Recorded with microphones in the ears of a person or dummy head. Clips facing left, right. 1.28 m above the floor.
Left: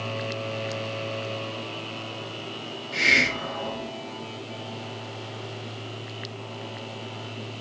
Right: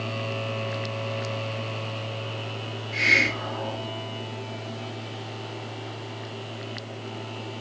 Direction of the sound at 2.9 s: 40° left (ahead or behind).